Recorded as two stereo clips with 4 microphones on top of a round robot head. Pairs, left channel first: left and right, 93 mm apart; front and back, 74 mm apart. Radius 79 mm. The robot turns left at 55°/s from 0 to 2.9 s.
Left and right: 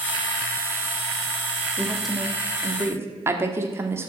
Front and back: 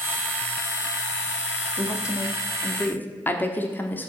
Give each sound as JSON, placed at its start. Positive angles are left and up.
{"t": 1.8, "sound": "a woman speaking", "azimuth_deg": 15, "distance_m": 1.2}